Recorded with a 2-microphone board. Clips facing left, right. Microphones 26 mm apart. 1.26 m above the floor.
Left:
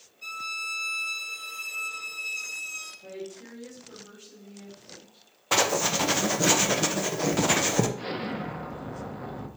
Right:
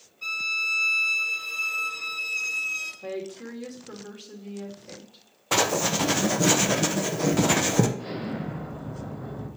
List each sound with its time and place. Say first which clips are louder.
0.2 s a violin: right 7 dB; 35° right (ahead or behind), 1.5 m
3.0 s a woman speaking: right 6 dB; 85° right, 2.5 m
5.5 s writing: right 1 dB; 5° left (ahead or behind), 0.9 m
8.0 s an explosion: even; 60° left (ahead or behind), 1.4 m